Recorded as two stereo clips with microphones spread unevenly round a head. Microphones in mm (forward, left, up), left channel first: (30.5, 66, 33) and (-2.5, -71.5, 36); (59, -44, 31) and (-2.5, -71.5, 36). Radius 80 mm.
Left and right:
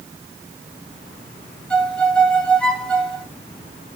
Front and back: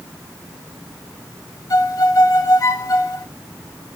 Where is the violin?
5° right, 2 m.